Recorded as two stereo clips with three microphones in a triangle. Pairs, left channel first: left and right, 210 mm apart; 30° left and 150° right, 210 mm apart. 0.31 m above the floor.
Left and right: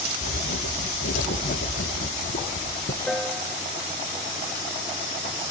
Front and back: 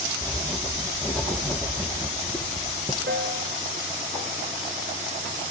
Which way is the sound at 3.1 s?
175° left.